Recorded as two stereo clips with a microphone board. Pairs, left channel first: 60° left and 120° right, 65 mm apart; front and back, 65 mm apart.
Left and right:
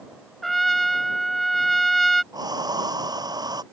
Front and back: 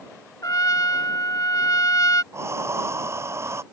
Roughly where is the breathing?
Behind right.